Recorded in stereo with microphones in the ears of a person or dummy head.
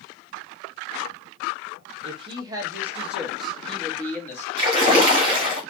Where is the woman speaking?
35° right (ahead or behind), 1.2 m; by 4.5 s 15° left (ahead or behind), 2.5 m.